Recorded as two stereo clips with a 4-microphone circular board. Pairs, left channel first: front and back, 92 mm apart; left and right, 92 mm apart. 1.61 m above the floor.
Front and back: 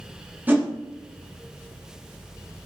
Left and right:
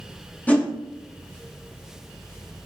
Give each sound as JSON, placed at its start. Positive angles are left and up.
{"t": 0.5, "sound": "a whoosh", "azimuth_deg": 140, "distance_m": 0.6}